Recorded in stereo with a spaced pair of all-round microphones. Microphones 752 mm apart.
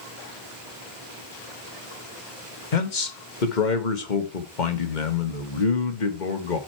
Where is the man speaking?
75° left (ahead or behind), 1.6 m.